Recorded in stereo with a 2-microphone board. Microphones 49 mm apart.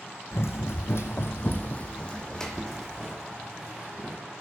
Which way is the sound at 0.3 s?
75° left (ahead or behind).